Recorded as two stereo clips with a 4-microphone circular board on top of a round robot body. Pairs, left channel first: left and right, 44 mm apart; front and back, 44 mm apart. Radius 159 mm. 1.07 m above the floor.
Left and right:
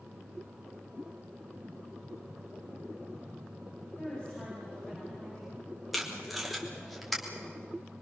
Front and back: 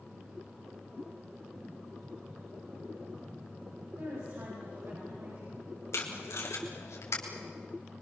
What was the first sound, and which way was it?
A woman speaking, 150° left.